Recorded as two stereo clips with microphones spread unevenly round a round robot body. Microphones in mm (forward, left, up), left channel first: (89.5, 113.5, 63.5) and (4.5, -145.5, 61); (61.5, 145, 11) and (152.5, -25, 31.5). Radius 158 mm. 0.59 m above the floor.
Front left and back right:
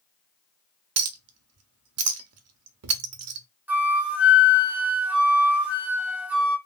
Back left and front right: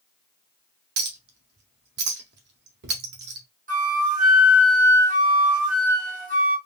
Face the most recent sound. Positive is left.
turn(degrees=-25)